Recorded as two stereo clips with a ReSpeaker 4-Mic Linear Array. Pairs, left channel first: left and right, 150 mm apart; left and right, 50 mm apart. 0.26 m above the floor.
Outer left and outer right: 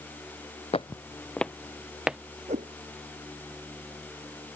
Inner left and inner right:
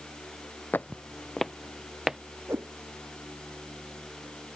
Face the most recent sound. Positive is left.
turn(degrees=-50)  # may be behind; listen again after turning